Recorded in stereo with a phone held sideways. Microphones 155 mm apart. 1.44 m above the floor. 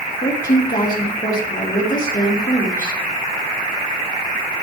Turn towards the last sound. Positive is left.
turn(degrees=60)  # may be behind; listen again after turning